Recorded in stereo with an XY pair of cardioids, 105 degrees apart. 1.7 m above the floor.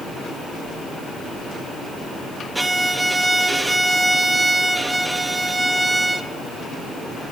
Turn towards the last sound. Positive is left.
turn(degrees=-15)